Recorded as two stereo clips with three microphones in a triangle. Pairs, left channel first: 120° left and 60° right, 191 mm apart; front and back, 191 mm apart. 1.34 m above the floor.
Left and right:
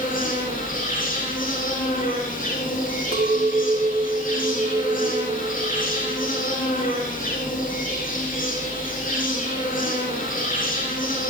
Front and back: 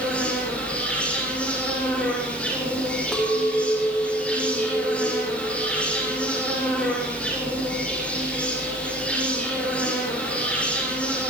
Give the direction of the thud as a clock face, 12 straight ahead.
I don't hear a thud.